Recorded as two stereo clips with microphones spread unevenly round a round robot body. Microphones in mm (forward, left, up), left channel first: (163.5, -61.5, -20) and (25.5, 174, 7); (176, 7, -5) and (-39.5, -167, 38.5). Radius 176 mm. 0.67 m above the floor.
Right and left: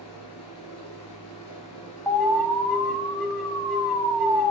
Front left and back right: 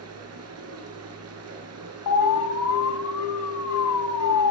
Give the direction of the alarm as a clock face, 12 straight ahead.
11 o'clock.